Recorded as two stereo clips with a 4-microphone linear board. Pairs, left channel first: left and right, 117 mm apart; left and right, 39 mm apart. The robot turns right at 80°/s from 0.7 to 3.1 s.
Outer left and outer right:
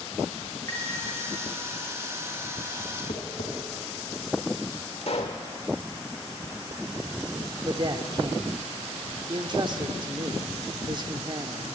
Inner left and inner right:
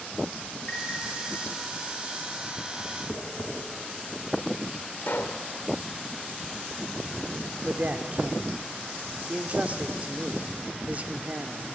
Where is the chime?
25° left (ahead or behind), 2.5 m; by 0.9 s 10° left (ahead or behind), 2.5 m.